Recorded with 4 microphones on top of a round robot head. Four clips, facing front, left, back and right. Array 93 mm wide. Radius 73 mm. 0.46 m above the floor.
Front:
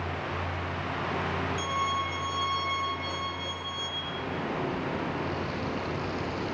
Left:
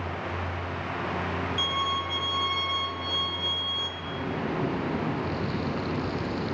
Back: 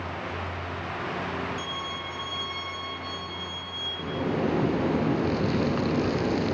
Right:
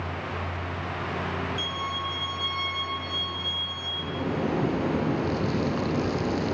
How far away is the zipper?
About 3.5 m.